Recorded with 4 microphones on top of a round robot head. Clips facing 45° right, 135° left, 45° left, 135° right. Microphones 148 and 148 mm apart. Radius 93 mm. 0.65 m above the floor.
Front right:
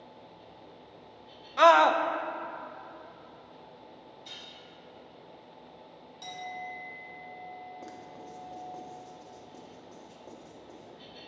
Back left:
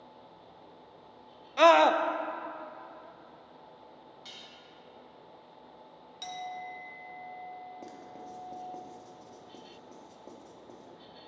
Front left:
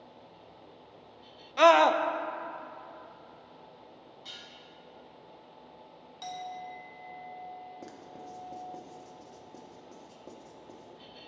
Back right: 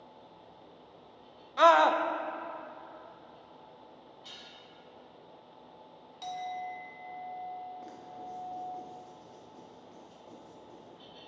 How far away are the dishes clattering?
About 3.5 m.